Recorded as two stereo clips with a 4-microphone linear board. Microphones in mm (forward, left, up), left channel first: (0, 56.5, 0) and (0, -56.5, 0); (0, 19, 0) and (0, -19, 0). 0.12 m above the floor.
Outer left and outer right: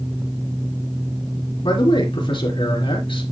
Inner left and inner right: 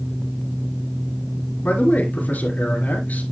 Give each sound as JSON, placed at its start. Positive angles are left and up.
{"t": 1.6, "sound": "a man speaking", "side_deg": 50, "distance_m": 2.5}